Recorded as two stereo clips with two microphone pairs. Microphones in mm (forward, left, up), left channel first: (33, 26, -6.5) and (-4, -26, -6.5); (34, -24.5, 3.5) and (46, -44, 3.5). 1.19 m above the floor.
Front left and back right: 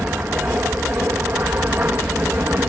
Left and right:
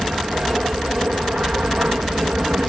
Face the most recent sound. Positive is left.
turn(degrees=-80)